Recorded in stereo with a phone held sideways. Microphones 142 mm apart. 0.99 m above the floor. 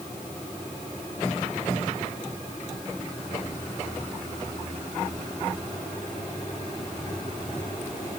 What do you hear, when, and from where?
Only background noise.